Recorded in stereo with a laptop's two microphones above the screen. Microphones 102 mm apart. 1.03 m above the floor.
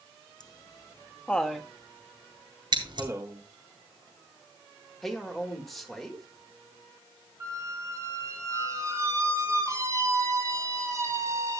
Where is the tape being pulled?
No tape being pulled in this recording.